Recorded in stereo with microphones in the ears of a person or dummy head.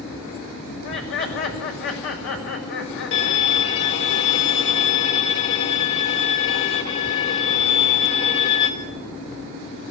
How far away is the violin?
About 3 m.